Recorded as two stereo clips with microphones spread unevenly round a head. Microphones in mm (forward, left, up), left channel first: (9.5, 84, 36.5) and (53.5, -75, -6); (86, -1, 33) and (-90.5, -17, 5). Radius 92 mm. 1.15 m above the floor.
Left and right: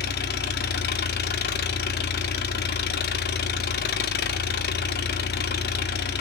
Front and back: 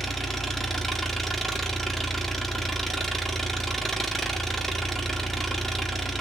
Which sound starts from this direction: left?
An engine running, at 0.0 s.